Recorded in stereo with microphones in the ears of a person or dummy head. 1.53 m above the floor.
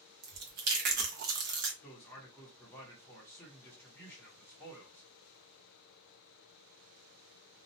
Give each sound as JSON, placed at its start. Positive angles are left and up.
{"t": 0.2, "sound": "chewing", "side_deg": -50, "distance_m": 0.6}
{"t": 1.8, "sound": "a man speaking", "side_deg": 10, "distance_m": 0.8}